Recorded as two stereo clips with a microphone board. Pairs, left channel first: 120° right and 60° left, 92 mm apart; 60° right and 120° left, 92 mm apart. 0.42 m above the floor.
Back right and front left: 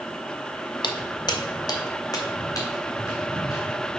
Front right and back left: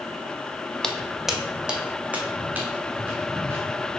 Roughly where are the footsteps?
Behind right.